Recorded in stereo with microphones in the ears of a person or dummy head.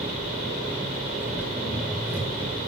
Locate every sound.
0.0 s an engine running: 5° right (ahead or behind), 4 m